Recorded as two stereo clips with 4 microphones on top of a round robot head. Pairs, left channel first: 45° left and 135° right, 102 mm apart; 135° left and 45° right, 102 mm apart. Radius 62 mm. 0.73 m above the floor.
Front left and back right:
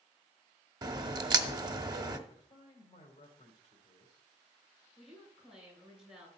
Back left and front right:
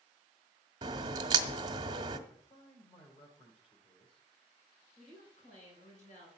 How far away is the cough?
No cough in this recording.